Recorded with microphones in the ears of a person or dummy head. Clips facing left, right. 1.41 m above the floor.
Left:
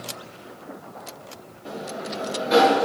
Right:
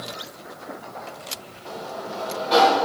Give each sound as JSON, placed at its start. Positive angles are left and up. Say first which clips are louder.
{"t": 1.6, "sound": "a sliding door", "louder": "left 1 dB", "side_deg": 20, "distance_m": 1.1}